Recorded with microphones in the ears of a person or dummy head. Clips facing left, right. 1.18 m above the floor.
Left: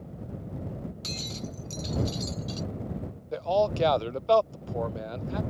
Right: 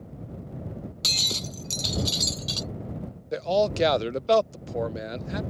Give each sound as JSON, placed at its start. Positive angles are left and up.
{"t": 1.0, "sound": "breaking glass", "side_deg": -70}
{"t": 3.3, "sound": "a man speaking", "side_deg": -25}